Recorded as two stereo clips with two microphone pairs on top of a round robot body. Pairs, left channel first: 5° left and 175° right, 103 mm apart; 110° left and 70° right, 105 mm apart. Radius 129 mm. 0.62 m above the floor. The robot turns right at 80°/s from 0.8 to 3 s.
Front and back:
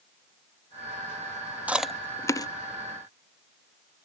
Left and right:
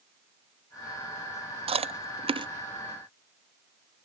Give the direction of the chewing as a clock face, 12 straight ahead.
3 o'clock.